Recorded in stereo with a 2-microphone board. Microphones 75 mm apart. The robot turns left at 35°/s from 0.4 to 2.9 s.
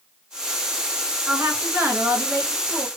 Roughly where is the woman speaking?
Ahead.